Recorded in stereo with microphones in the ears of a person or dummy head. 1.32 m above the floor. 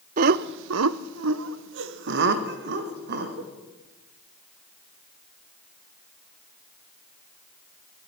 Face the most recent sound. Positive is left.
turn(degrees=-65)  # may be behind; listen again after turning